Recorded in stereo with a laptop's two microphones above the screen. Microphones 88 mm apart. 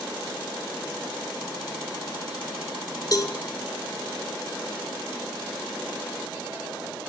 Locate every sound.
3.1 s a cowbell: 45° left (ahead or behind), 1.8 m